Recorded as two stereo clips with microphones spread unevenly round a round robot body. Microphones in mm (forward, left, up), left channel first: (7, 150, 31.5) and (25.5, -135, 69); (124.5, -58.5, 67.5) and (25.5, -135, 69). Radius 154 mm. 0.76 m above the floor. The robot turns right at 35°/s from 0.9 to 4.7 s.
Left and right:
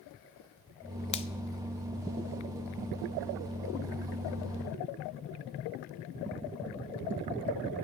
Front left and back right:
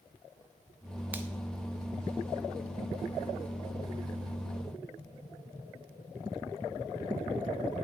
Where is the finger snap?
145° left, 0.6 m; by 1.3 s 150° left, 0.6 m.